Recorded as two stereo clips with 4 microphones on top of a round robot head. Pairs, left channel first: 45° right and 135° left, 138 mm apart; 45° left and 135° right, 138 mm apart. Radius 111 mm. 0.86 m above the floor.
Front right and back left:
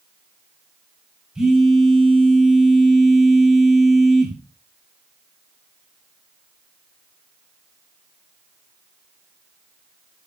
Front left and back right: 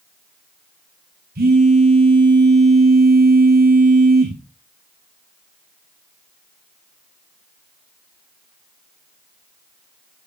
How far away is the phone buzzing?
About 4 m.